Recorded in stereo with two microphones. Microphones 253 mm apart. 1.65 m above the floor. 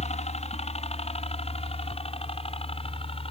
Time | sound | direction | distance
0.0 | a helicopter | 25° left (ahead or behind) | ?